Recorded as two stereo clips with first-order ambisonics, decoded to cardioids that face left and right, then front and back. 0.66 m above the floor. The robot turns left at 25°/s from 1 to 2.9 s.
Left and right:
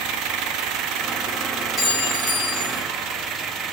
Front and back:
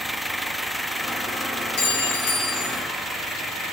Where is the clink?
10° left, 1.2 m; by 2.8 s 20° right, 1.2 m.